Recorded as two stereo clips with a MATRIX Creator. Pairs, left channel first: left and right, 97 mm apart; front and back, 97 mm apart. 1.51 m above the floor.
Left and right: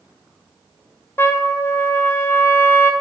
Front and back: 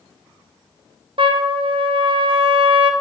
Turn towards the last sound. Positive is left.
turn(degrees=155)